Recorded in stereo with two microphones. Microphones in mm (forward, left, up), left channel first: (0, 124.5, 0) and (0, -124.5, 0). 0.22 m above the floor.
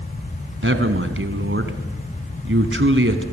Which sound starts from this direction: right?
A man speaking, at 0.6 s.